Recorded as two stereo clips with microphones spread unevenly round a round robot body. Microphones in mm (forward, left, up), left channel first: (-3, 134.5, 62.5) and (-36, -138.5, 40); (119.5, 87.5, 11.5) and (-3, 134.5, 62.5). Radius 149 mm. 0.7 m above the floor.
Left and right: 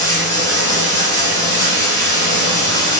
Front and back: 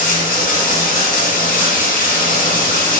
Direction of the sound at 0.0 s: 5° left.